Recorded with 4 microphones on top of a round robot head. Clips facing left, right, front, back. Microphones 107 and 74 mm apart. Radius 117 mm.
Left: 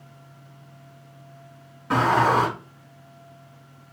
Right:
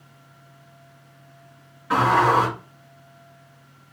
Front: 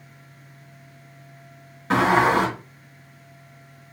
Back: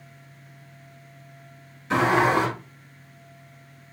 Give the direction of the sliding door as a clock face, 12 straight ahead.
11 o'clock.